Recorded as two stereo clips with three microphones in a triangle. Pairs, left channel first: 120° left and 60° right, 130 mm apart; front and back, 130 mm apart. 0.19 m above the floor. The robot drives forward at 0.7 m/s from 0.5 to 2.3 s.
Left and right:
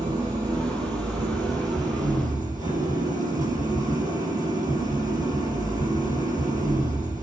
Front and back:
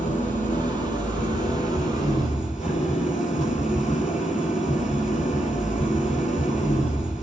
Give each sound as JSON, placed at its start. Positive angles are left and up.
{"t": 0.0, "sound": "an engine running", "azimuth_deg": 0, "distance_m": 4.0}